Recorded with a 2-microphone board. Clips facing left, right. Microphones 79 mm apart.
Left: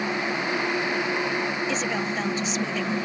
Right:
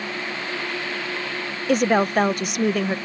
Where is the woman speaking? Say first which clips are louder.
Right 8 dB; 55° right (ahead or behind).